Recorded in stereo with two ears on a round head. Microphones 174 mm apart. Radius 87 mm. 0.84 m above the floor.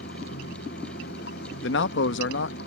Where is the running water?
55° left (ahead or behind).